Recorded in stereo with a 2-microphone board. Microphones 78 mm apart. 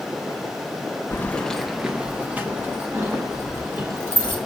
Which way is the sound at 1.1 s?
30° left (ahead or behind).